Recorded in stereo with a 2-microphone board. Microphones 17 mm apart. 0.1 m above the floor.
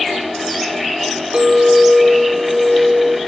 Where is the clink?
50° right (ahead or behind), 1.8 m.